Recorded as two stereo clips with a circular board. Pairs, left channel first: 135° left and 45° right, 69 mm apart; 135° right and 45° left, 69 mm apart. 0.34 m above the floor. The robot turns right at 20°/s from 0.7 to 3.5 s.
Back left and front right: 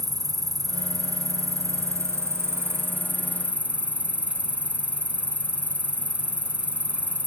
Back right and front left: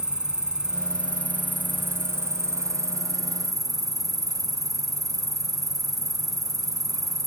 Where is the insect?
35° right; by 7.3 s 25° left.